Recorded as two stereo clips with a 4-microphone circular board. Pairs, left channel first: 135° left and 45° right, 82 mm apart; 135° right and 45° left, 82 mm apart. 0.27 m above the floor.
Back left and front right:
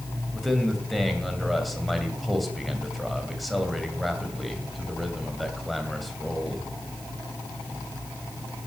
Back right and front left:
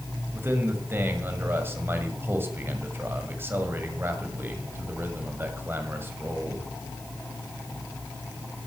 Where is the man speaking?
45° left, 1.7 m.